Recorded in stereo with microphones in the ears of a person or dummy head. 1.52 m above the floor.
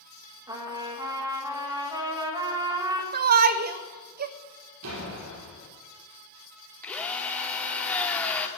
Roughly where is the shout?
Right.